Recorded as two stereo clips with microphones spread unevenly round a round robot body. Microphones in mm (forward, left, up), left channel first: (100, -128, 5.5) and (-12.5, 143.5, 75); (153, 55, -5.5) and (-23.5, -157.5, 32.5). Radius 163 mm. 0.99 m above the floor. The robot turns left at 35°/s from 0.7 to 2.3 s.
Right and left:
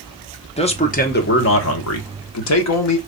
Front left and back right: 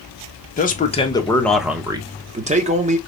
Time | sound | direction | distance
0.6 | a man speaking | 5° right | 1.0 m